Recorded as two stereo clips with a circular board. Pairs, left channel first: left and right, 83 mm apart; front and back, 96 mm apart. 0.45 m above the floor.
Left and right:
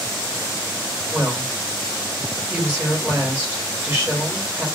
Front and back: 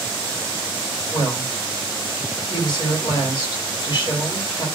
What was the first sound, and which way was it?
A woman speaking, 25° right.